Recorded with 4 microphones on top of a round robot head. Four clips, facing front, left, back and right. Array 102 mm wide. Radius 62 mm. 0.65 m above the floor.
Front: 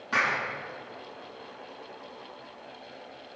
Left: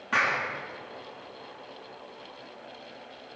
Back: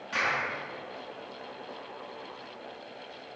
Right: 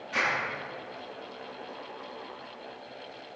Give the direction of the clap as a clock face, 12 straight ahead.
10 o'clock.